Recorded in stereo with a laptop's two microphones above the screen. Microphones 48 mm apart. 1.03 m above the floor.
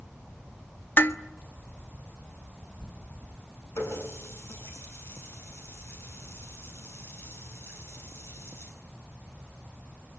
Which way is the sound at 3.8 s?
65° left (ahead or behind).